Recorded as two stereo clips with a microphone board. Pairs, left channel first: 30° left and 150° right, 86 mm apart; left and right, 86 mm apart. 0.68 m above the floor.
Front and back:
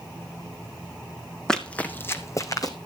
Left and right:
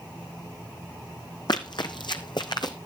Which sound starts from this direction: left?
Running footsteps, at 1.5 s.